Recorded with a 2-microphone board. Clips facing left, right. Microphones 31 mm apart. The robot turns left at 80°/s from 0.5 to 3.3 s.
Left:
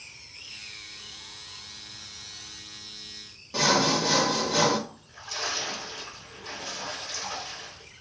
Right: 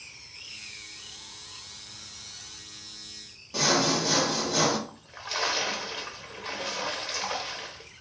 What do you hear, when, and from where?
3.5 s sawing: 10° left (ahead or behind), 1.1 m
4.9 s a splash: 60° right (ahead or behind), 0.9 m